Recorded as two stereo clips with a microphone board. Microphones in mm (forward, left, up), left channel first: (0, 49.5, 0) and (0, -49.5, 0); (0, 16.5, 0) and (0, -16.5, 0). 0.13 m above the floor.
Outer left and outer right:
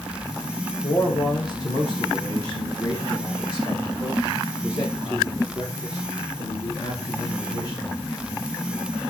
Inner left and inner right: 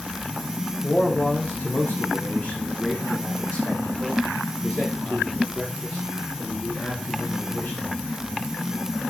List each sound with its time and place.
0.8 s a man speaking: 50° left (ahead or behind), 5.5 m; by 7.9 s 45° left (ahead or behind), 9 m